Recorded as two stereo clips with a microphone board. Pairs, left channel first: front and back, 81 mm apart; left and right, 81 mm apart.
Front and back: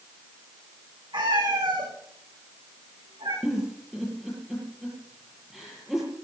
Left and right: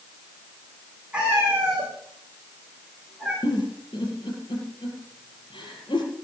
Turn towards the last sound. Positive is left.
turn(degrees=90)